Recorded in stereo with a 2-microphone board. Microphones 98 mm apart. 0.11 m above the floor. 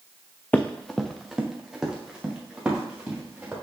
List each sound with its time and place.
0.5 s running footsteps: 15° left (ahead or behind), 0.6 m; by 3.5 s 10° right (ahead or behind), 3.5 m